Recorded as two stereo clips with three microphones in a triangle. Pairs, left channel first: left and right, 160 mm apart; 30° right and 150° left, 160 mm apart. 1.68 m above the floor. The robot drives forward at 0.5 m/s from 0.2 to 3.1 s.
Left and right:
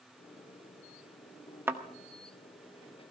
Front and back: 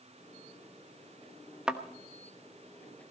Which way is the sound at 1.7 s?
135° right.